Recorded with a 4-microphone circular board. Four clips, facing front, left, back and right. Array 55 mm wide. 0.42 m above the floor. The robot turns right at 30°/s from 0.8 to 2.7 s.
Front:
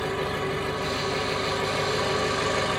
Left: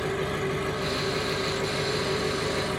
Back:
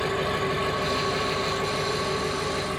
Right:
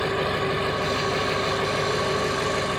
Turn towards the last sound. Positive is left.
turn(degrees=-45)